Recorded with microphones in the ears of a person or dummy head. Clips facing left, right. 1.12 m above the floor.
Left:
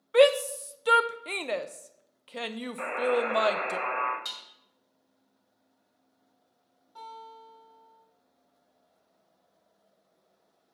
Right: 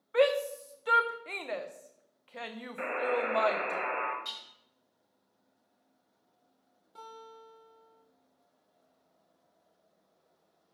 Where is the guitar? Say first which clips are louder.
Left 3 dB; 35° right (ahead or behind), 1.7 m.